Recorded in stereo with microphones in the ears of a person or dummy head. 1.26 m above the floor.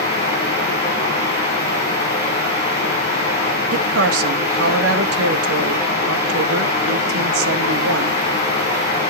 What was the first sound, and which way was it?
Running water, 35° left (ahead or behind).